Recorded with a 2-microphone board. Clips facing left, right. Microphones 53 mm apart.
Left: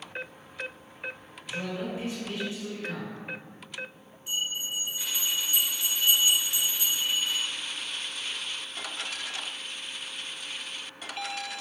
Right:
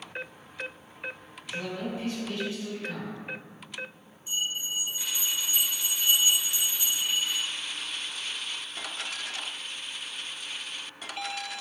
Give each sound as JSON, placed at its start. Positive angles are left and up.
{"t": 1.4, "sound": "a man speaking", "side_deg": 25, "distance_m": 1.7}
{"t": 4.3, "sound": "a bell", "side_deg": 70, "distance_m": 1.0}